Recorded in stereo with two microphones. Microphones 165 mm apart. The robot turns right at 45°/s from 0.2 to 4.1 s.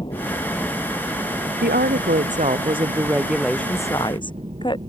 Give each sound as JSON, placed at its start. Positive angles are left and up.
{"t": 0.0, "sound": "a helicopter", "azimuth_deg": 150}
{"t": 1.6, "sound": "a woman speaking", "azimuth_deg": -80}